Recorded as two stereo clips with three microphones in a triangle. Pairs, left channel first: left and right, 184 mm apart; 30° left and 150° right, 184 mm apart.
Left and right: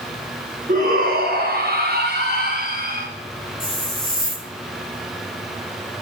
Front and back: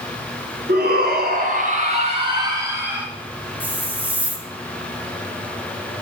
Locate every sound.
0.7 s a shout: 125° right, 3.5 m; by 3.1 s 65° right, 2.5 m
3.6 s a hiss: 130° left, 1.3 m